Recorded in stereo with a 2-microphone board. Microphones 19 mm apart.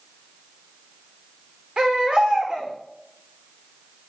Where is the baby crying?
15° right (ahead or behind), 6 m.